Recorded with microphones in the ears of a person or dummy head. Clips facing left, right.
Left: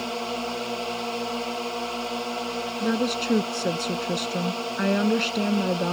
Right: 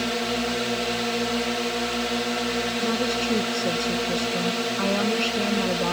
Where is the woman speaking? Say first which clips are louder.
Left 3 dB; 20° left (ahead or behind).